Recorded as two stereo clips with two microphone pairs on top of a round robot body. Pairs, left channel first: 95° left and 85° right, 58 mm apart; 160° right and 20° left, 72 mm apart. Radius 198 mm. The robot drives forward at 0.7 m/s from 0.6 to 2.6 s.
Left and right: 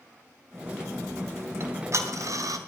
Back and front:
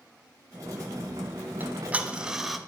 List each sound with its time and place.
1.6 s ticking: 45° right, 1.4 m; by 2.6 s 70° right, 1.1 m